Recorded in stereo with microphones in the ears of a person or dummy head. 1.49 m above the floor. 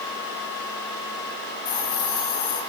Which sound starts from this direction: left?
A hiss, at 1.6 s.